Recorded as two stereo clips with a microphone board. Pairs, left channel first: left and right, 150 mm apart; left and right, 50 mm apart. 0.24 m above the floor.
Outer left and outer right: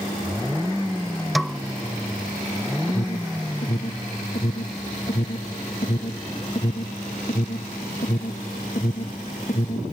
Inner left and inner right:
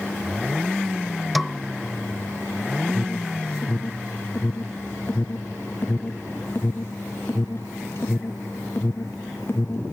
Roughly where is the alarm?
Left.